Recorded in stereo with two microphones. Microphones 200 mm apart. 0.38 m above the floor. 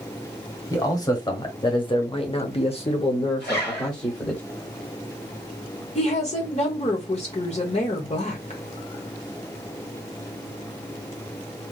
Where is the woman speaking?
35° left (ahead or behind), 1.0 m.